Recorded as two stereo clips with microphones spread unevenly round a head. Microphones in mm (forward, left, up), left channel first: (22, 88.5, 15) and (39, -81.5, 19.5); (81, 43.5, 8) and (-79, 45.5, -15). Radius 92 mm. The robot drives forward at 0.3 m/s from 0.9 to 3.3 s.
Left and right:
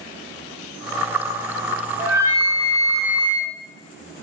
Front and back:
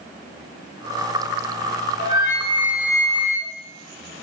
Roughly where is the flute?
Ahead.